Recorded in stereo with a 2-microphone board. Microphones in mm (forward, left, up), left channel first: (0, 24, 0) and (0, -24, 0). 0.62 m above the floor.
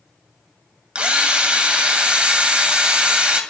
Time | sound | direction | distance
0.9 | a drill | 25° right (ahead or behind) | 2.0 m